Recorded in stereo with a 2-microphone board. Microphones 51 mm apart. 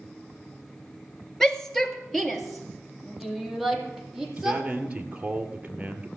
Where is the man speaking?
20° right (ahead or behind), 1.9 m.